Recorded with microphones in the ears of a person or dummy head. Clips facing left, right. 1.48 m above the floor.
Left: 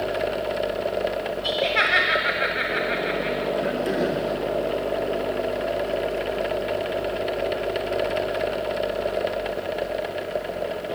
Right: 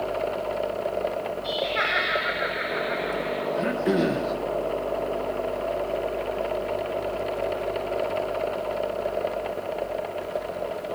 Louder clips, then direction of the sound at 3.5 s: Right 3 dB; 45° right (ahead or behind).